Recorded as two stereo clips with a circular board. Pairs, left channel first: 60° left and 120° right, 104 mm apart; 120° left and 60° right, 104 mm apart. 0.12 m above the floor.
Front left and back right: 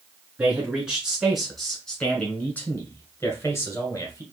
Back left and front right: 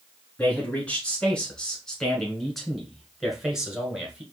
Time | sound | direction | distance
0.4 | a man speaking | 175° left | 1.7 m